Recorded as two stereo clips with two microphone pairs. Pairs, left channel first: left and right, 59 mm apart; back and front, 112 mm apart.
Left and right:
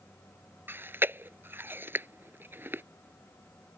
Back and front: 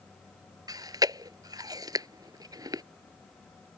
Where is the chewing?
50° right.